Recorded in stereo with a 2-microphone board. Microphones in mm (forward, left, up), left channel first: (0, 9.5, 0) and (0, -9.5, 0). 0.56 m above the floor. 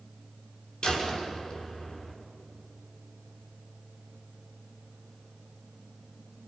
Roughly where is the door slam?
Left.